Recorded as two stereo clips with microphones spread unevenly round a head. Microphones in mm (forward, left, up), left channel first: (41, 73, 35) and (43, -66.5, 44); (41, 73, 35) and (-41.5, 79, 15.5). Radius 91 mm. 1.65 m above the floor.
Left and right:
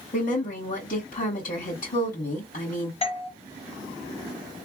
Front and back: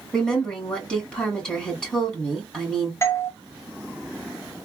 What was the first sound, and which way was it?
A woman speaking, 70° left.